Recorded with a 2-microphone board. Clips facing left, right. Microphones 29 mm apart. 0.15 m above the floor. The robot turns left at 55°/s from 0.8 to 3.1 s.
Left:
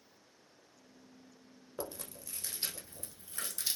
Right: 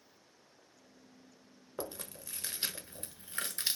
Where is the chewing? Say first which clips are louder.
Right 1 dB; 25° right (ahead or behind), 0.8 m; by 3.8 s 50° right (ahead or behind), 0.8 m.